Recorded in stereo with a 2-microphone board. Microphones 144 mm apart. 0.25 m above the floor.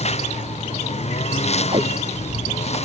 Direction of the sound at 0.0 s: 50° left (ahead or behind).